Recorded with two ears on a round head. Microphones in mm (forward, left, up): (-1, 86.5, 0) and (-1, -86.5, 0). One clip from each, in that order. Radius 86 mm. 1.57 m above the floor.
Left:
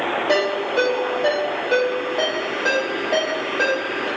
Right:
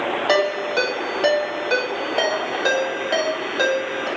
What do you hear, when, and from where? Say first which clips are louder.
0.3 s a ringtone: right 2 dB; 70° right (ahead or behind), 1.9 m